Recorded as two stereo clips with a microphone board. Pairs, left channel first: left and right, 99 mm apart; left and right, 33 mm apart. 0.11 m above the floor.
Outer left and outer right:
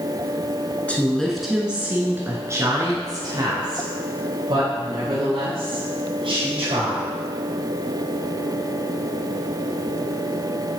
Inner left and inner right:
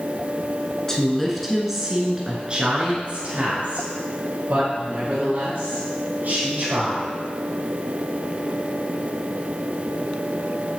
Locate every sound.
0.9 s a woman speaking: 15° left (ahead or behind), 1.1 m; by 7.1 s 65° right (ahead or behind), 3.5 m